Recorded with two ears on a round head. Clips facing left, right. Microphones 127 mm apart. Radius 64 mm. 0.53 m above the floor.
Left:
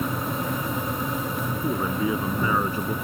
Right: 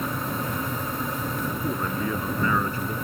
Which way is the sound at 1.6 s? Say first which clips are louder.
Left 5 dB; 10° left (ahead or behind).